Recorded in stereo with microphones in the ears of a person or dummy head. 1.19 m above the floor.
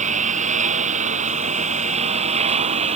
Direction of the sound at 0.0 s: 40° right (ahead or behind).